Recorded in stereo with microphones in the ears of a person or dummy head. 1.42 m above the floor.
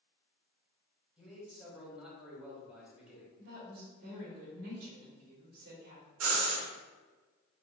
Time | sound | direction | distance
1.2 | a man speaking | centre (ahead or behind) | 1.6 m
3.4 | a woman speaking | 45° right (ahead or behind) | 1.3 m
6.2 | breathing | 80° right | 1.1 m